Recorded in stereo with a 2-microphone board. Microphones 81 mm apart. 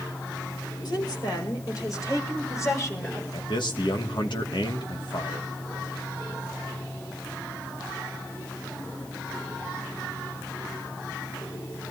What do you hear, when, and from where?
0.8 s a woman speaking: 60° left (ahead or behind), 6 m; by 3.2 s 30° left (ahead or behind), 6.5 m
3.3 s a man speaking: 70° left (ahead or behind), 2.5 m